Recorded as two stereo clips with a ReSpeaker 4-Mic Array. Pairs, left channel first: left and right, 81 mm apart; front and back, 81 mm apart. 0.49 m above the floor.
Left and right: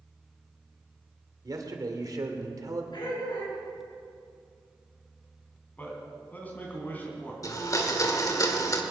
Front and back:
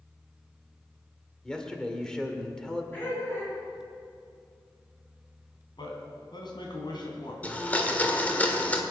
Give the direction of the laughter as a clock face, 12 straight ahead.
10 o'clock.